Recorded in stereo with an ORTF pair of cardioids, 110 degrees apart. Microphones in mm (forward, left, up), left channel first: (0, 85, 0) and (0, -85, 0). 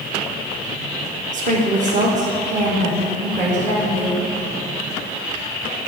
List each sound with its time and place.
1.3 s a woman speaking: 45° right, 1.2 m